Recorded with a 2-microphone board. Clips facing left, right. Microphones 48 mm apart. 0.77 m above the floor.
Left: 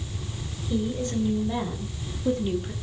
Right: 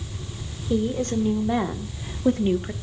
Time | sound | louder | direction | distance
0.7 | a woman speaking | right 4 dB | 70° right (ahead or behind) | 3 m